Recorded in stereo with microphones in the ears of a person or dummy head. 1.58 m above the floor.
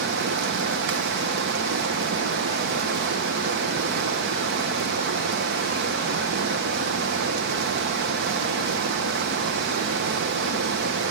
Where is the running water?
65° right (ahead or behind), 0.9 m.